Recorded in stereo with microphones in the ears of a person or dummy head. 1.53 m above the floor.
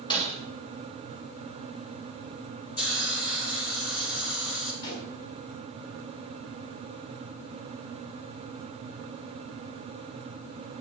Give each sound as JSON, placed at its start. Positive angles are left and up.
{"t": 0.1, "sound": "breaking glass", "side_deg": 25, "distance_m": 3.0}
{"t": 2.8, "sound": "a hiss", "side_deg": 75, "distance_m": 6.0}
{"t": 4.8, "sound": "a pop", "side_deg": 70, "distance_m": 4.5}